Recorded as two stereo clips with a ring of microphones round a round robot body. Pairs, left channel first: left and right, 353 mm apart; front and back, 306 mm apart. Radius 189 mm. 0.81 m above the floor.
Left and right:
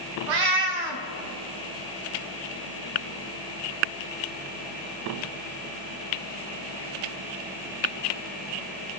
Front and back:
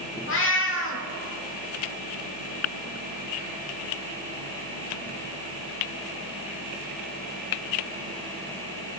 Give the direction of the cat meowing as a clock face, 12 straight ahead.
2 o'clock.